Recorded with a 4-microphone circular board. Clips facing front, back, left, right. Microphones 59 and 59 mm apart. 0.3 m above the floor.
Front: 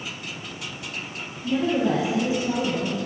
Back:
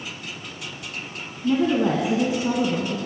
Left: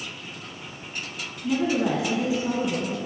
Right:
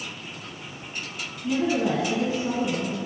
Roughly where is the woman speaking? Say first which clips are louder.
Back 2 dB, even; behind.